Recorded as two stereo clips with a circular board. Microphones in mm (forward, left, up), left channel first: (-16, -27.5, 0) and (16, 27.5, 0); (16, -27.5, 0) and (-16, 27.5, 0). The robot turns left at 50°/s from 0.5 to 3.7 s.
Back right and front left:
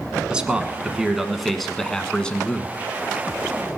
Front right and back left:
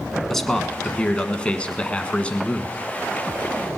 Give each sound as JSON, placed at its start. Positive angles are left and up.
{"t": 0.3, "sound": "a man speaking", "azimuth_deg": 15, "distance_m": 1.1}